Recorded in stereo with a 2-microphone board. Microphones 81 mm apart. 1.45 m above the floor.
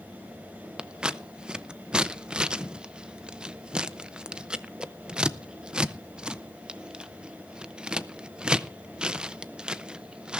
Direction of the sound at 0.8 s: 10° right (ahead or behind).